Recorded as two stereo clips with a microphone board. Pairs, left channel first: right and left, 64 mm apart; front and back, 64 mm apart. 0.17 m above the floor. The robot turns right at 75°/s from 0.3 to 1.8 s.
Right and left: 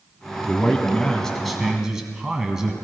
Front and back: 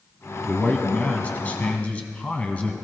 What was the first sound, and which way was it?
A man speaking, 80° right.